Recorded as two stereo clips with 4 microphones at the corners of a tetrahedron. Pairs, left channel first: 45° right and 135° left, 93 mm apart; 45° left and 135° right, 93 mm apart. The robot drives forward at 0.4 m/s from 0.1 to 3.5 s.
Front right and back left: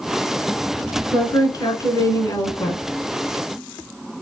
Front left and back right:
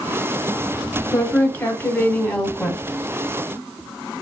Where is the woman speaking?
15° right, 1.6 m; by 2.8 s 30° right, 1.2 m.